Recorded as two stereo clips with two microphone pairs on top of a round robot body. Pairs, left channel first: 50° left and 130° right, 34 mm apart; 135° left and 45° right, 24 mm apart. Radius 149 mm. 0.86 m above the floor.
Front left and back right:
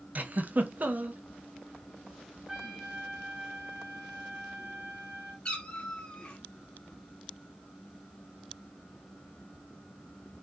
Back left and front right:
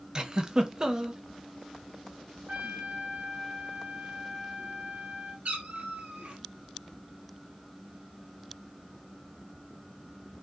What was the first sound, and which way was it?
A giggle, 105° right.